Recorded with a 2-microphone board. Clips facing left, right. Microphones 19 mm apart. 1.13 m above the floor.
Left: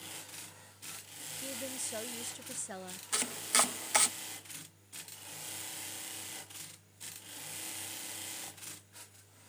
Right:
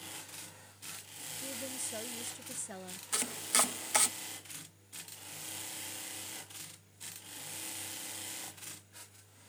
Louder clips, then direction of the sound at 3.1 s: Left 1 dB; 15° left (ahead or behind).